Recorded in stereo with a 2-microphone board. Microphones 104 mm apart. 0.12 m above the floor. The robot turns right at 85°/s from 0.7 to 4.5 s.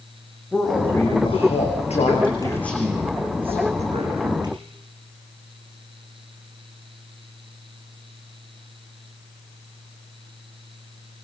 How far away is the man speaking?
About 7 m.